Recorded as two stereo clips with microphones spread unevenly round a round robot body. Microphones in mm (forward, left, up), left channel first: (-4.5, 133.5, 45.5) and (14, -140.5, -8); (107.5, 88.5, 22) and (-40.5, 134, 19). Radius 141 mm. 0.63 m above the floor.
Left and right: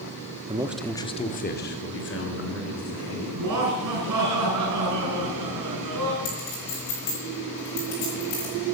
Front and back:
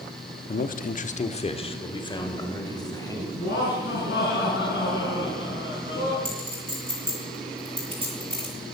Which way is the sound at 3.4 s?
65° right.